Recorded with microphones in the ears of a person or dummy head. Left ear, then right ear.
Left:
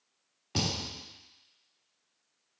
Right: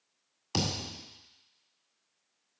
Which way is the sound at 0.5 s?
30° right (ahead or behind).